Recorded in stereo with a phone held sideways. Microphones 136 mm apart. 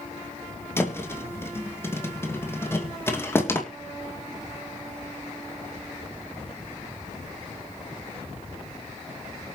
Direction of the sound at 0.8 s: 20° left (ahead or behind).